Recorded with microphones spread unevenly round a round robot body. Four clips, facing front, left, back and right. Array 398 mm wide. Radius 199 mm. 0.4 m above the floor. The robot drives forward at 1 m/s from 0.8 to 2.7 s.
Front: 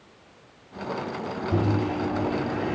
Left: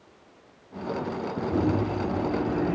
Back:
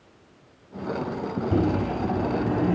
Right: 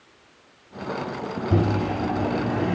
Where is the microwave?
110° right, 2.5 m; by 2.8 s 135° right, 3 m.